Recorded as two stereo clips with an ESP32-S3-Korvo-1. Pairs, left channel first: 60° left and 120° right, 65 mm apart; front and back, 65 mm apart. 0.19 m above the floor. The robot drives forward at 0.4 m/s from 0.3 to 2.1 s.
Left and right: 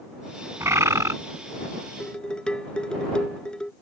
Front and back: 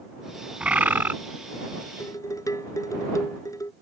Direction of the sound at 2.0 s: 15° right.